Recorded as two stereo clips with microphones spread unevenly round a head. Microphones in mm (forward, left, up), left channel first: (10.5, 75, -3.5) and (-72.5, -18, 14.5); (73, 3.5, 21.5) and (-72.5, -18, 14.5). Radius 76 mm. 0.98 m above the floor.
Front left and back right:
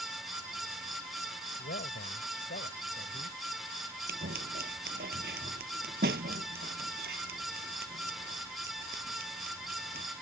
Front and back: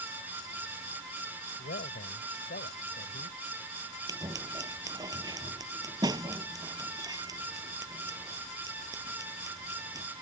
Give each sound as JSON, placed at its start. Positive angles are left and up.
{"t": 1.6, "sound": "a man speaking", "azimuth_deg": 40}
{"t": 4.1, "sound": "scissors", "azimuth_deg": -105}